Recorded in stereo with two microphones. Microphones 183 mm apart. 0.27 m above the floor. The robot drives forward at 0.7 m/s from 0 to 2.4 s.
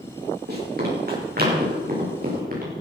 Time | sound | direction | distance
0.5 | running footsteps | 55° right (ahead or behind) | 8 m